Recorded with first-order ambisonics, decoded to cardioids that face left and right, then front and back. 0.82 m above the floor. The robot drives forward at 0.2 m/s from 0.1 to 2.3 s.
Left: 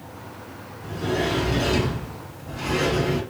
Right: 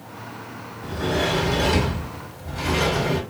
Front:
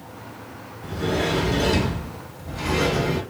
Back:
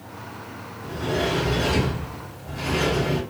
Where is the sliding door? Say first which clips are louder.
Right 2 dB, front 1 dB; 90° right, 1.8 m; by 3.2 s 100° right, 1.8 m.